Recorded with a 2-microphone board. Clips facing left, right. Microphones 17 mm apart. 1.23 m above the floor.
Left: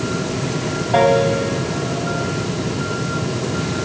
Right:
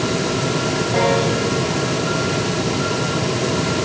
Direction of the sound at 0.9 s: 45° left (ahead or behind).